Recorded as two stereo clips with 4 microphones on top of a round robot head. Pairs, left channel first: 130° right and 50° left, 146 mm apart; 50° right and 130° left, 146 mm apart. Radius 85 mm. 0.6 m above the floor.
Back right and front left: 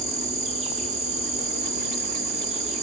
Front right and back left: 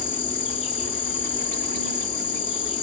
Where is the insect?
5° left, 1.6 m.